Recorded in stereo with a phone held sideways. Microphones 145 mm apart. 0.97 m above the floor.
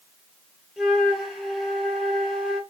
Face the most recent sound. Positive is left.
turn(degrees=-5)  # may be behind; listen again after turning